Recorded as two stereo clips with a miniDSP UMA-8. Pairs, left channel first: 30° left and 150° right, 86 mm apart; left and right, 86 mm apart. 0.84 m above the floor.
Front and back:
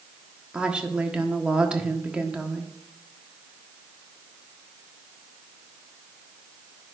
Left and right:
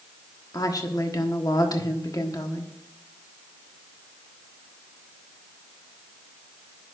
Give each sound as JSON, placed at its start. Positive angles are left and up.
{"t": 0.5, "sound": "a woman speaking", "azimuth_deg": 130, "distance_m": 1.3}